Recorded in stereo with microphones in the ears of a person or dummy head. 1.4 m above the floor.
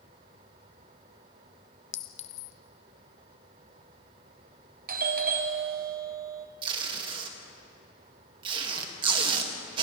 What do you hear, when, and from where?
1.9 s a clink: 35° left (ahead or behind), 0.6 m
4.9 s a doorbell: 45° right (ahead or behind), 1.0 m
6.6 s tape being pulled: 30° right (ahead or behind), 2 m